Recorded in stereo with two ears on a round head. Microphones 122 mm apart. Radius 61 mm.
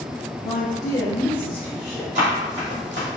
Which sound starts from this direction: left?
A woman speaking, at 0.4 s.